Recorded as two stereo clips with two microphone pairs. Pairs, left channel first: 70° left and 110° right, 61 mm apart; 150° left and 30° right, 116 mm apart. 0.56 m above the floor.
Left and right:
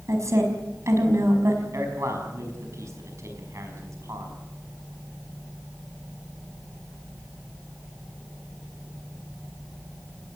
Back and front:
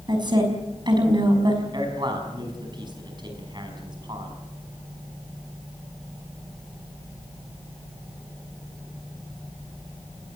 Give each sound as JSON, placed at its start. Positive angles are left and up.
{"t": 0.1, "sound": "a woman speaking", "azimuth_deg": -80, "distance_m": 5.5}
{"t": 1.7, "sound": "a man speaking", "azimuth_deg": -75, "distance_m": 5.5}